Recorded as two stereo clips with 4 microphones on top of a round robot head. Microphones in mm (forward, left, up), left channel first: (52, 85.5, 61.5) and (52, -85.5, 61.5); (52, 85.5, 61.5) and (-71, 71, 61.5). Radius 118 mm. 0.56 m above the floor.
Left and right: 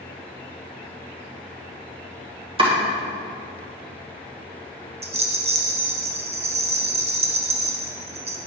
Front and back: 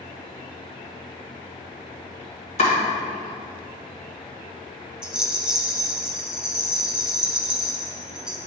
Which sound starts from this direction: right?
A rattle, at 5.0 s.